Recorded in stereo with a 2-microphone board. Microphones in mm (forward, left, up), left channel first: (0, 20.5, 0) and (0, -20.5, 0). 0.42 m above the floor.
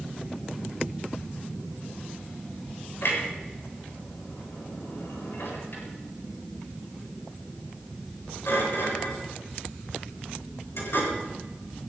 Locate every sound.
3.0 s a clunk: 75° left (ahead or behind), 8 m